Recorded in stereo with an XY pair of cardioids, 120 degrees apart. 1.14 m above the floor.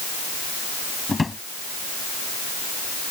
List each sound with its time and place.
1.1 s a drawer: 20° left